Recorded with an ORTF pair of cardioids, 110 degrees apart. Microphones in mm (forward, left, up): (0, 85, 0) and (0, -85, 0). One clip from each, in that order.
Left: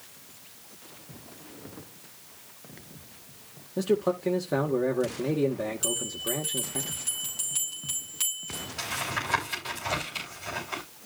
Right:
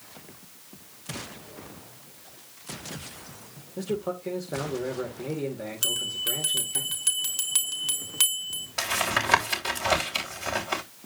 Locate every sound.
3.8 s a man speaking: 35° left, 2.0 m
5.8 s a bell: 55° right, 3.5 m
8.8 s tapping: 55° right, 4.5 m